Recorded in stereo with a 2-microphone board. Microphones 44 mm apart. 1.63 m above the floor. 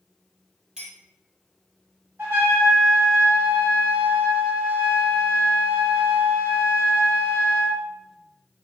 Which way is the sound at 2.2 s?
55° right (ahead or behind).